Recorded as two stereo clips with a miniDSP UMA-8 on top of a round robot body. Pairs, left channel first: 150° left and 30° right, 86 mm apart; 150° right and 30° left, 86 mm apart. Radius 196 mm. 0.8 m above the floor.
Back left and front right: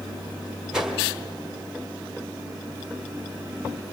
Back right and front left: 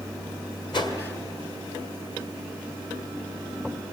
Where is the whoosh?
115° right, 1.7 m.